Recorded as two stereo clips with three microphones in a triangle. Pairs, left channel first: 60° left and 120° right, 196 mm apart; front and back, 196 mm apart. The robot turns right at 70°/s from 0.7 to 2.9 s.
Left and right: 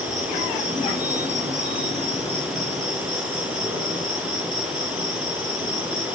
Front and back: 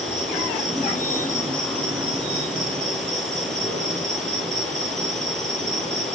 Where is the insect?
20° left, 4 m; by 6.2 s 175° left, 4 m.